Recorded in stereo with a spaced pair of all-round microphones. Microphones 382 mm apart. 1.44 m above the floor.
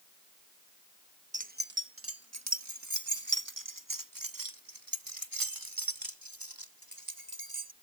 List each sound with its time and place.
1.3 s keys jangling: 20° right (ahead or behind); by 7.7 s 65° right (ahead or behind)